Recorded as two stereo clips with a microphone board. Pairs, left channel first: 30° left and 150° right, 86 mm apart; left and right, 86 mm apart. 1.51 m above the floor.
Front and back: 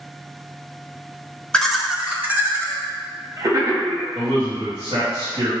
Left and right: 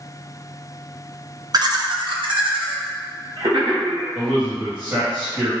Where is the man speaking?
155° right, 1.8 m.